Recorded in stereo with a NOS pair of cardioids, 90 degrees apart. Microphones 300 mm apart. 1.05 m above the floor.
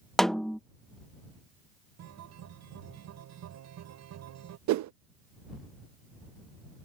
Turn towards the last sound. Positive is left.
turn(degrees=-70)